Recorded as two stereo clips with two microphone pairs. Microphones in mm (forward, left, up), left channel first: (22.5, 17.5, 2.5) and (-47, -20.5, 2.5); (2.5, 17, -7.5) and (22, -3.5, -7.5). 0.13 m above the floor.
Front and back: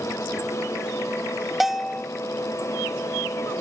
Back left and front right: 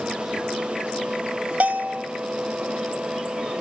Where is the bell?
65° right, 0.9 m.